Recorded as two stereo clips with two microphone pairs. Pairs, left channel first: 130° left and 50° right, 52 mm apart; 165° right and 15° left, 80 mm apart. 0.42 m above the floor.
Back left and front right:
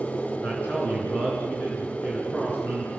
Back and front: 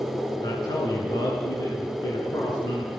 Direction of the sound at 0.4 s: 175° right.